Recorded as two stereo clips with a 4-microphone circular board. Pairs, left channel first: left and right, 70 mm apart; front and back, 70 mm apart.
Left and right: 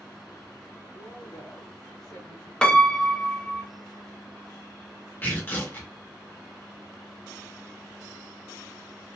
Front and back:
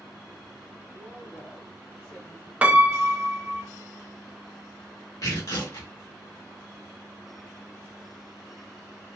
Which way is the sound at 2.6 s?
150° left.